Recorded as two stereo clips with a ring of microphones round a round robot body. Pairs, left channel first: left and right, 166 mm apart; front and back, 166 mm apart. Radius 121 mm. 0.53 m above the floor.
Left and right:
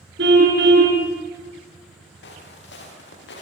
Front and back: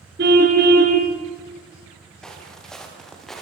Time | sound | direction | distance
0.2 | a car horn | 130° right | 3.5 m
2.2 | footsteps | 85° left | 8 m